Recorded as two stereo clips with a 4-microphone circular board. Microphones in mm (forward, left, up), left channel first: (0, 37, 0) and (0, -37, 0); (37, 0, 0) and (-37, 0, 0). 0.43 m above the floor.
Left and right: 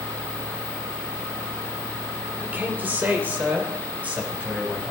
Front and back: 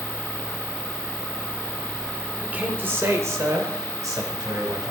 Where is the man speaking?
125° right, 1.4 m; by 4.9 s 160° right, 3 m.